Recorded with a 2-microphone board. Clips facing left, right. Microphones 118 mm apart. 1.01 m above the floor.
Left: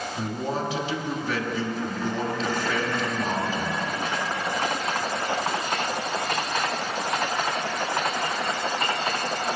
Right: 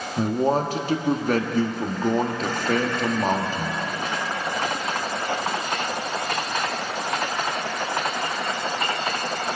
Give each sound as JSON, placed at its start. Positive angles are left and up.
{"t": 0.2, "sound": "a man speaking", "side_deg": -50, "distance_m": 1.4}